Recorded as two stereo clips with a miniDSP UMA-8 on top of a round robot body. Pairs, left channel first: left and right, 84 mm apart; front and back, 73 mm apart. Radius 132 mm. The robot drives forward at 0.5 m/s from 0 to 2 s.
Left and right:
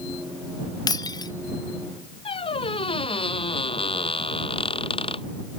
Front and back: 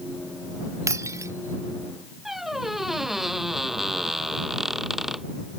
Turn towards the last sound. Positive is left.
turn(degrees=95)